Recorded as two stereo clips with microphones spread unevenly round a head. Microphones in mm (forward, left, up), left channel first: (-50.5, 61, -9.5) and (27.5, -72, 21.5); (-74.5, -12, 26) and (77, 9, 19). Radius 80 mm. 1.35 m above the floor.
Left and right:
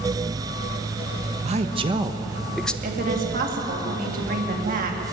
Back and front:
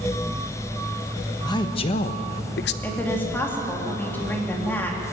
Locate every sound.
1.4 s a man speaking: 105° right, 1.3 m; by 2.7 s 155° right, 1.0 m
2.8 s a woman speaking: 95° right, 3 m